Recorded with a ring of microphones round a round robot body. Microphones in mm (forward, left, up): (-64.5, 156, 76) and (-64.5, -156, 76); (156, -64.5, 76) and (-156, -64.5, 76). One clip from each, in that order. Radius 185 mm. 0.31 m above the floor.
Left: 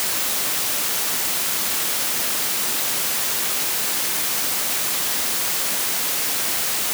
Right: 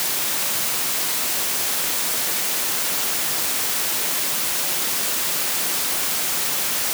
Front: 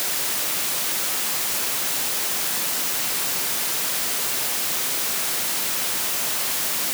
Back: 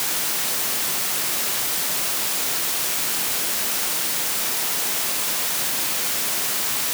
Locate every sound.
Only background noise.